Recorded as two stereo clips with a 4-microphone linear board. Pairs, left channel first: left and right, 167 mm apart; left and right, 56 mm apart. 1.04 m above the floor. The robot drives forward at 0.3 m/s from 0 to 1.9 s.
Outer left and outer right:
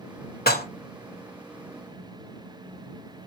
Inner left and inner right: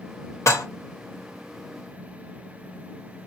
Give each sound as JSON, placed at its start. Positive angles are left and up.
{"t": 0.5, "sound": "dishes clattering", "side_deg": 75, "distance_m": 0.9}